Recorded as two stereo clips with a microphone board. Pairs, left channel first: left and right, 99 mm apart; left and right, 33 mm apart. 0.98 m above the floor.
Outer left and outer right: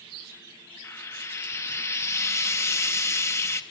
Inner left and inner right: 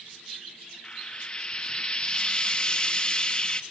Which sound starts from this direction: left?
Frying, at 0.8 s.